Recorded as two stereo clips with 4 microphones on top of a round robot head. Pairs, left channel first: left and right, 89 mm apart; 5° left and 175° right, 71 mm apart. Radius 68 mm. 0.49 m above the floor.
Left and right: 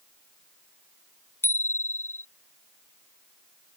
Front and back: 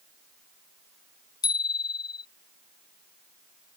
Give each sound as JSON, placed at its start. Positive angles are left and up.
{"t": 1.4, "sound": "a bicycle bell", "azimuth_deg": 25}